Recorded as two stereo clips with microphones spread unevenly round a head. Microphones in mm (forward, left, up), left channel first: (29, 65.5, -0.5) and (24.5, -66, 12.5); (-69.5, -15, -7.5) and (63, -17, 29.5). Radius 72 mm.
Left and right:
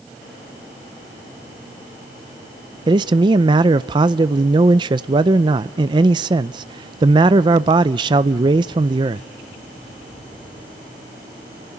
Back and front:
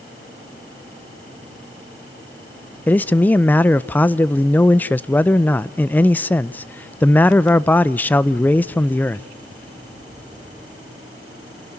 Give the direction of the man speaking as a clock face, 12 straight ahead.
5 o'clock.